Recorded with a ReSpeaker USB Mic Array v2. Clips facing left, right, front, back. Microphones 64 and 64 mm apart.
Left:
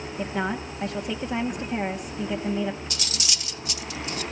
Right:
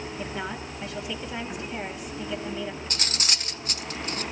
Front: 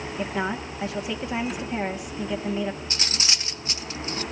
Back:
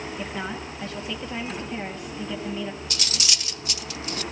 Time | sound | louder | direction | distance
0.2 | a woman speaking | left 8 dB, front 7 dB | 70° left | 1.2 m
2.9 | cutlery clinking | right 2 dB, front 1 dB | 55° right | 0.6 m